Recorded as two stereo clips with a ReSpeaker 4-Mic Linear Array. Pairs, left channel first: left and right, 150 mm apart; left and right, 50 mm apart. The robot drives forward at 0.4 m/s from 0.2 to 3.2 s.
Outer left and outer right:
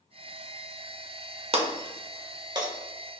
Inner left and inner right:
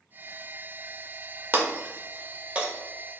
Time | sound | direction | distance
1.5 | breaking glass | 40° right (ahead or behind) | 0.5 m